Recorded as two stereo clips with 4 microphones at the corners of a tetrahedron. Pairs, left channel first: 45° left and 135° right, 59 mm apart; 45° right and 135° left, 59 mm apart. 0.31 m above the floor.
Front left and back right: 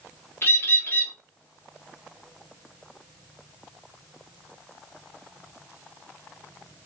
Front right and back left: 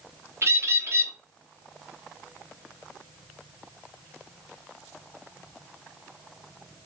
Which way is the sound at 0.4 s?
95° left.